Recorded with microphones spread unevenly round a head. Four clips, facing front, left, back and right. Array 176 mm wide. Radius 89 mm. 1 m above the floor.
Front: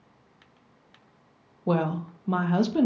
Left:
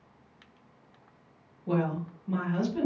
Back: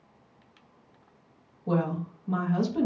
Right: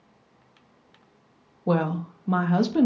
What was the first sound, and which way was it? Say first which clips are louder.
A woman speaking: right 5 dB, front 2 dB; 50° right.